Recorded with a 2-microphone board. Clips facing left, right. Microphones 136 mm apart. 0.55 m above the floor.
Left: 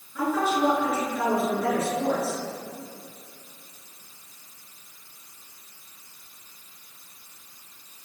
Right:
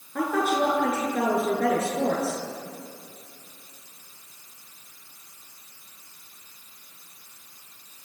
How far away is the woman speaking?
About 8.5 m.